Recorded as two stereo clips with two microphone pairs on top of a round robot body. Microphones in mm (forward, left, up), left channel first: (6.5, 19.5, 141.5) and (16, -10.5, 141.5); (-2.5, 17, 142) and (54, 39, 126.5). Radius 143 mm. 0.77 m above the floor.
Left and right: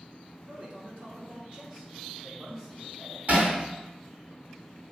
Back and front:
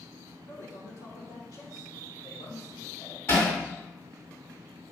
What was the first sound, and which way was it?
A man speaking, 120° right.